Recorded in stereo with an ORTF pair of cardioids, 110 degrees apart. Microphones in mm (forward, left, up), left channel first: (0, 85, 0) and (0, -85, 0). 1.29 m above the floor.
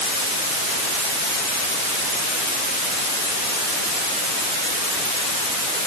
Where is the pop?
No pop in this recording.